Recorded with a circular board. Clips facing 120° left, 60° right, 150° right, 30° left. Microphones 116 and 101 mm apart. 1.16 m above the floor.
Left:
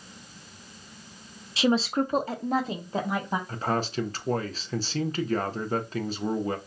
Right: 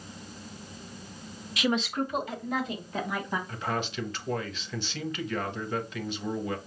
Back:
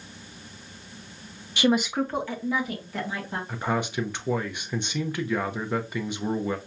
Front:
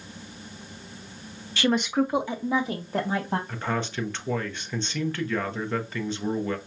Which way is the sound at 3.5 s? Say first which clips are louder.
Left 4 dB, back 2 dB; 145° left.